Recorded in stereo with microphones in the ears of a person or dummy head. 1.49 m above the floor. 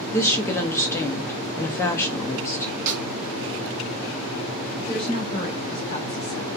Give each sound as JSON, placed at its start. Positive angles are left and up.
{"t": 0.1, "sound": "a woman speaking", "side_deg": 15, "distance_m": 0.5}
{"t": 2.9, "sound": "a snare drum", "side_deg": -40, "distance_m": 0.5}
{"t": 4.8, "sound": "a woman speaking", "side_deg": 35, "distance_m": 1.0}